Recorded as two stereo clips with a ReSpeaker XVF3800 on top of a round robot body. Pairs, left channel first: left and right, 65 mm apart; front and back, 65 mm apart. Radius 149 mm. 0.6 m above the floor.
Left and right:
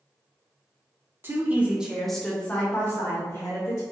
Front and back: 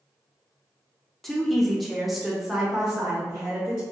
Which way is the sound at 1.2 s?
85° right.